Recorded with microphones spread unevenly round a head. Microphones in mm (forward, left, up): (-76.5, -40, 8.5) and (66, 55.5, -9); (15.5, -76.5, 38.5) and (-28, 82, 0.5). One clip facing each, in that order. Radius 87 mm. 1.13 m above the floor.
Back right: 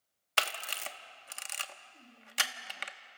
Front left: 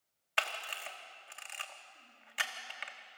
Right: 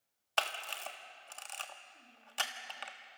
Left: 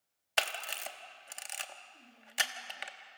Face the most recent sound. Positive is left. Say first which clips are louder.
# back right 2 dB, left 1 dB
turn(degrees=180)